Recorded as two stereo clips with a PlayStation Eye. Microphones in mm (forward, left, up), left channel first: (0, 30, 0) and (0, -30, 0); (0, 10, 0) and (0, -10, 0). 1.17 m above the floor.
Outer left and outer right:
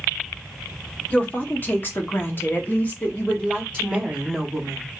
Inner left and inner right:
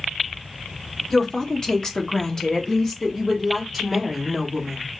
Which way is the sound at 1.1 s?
25° left (ahead or behind).